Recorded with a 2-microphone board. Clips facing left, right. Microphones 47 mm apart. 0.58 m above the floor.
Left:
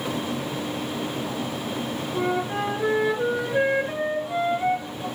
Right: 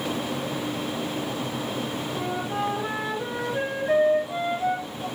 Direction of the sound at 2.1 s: 25° left (ahead or behind).